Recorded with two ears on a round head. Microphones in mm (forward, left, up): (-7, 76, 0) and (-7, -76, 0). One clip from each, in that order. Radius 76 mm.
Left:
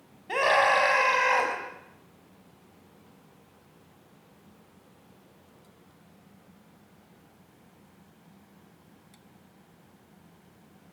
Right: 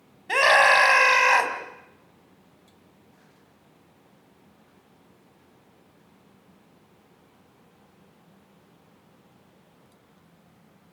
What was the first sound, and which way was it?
A scream, 50° right (ahead or behind).